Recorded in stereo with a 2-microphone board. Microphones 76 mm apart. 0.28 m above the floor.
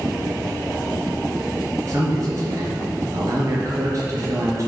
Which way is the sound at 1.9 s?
45° right (ahead or behind).